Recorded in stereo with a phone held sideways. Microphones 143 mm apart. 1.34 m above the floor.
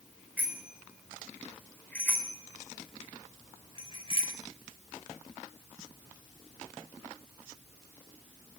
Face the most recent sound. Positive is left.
turn(degrees=40)  # may be behind; listen again after turning